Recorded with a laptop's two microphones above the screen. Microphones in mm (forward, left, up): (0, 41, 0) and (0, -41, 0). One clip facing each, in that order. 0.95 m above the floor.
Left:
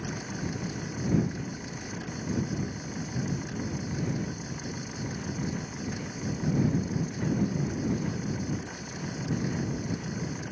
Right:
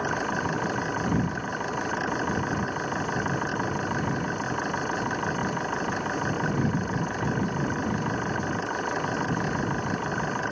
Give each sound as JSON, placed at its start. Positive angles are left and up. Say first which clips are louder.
{"t": 0.0, "sound": "an engine running", "louder": "right 8 dB", "side_deg": -70}